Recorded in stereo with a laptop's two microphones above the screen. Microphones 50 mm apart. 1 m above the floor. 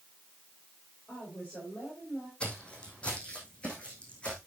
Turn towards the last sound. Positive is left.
turn(degrees=25)  # may be behind; listen again after turning